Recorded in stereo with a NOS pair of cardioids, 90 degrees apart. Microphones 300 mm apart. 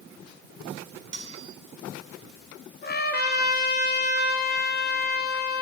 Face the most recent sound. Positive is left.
turn(degrees=35)